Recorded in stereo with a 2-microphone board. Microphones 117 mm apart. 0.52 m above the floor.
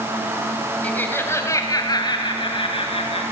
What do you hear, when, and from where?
0.8 s laughter: 10° left (ahead or behind), 3 m; by 3.2 s 55° left (ahead or behind), 3.5 m